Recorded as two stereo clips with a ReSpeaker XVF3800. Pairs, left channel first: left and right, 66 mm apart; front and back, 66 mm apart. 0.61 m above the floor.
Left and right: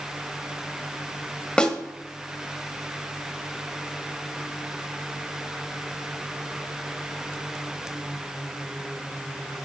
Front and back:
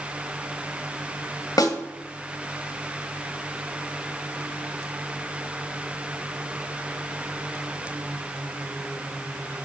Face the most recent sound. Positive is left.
turn(degrees=15)